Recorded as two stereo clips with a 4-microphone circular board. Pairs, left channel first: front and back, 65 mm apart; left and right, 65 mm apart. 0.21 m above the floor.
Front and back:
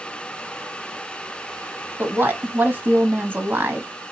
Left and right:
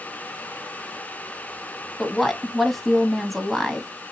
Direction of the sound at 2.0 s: Straight behind.